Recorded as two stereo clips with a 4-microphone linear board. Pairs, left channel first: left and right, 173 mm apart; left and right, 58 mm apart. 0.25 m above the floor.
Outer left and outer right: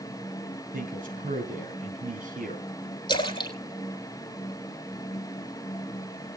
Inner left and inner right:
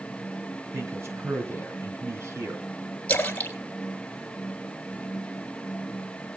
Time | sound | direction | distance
0.7 | a man speaking | 60° right (ahead or behind) | 2.5 m
3.1 | a splash | 30° left (ahead or behind) | 1.8 m